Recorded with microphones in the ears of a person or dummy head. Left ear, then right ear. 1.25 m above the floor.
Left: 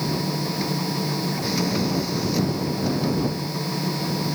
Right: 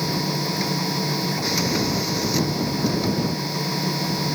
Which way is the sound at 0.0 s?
15° right (ahead or behind).